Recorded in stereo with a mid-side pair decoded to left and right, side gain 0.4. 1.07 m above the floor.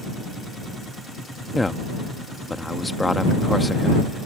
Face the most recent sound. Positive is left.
turn(degrees=20)